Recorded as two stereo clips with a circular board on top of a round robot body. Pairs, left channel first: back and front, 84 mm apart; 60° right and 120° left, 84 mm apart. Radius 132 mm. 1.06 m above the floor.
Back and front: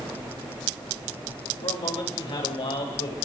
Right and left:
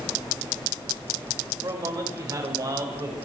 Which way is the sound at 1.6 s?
165° left.